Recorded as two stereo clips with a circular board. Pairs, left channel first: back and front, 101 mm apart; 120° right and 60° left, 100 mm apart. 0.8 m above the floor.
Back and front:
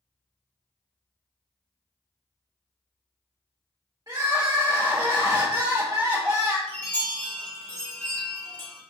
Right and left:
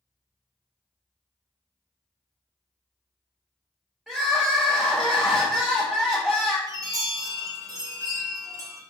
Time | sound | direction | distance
4.1 | crying | 25° right | 1.4 m
6.7 | a chime | 115° left | 1.0 m